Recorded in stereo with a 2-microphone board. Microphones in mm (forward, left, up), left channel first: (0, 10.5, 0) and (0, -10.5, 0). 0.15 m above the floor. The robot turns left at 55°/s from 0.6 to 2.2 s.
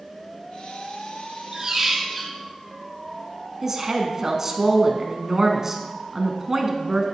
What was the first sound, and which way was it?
A squeak, 145° right.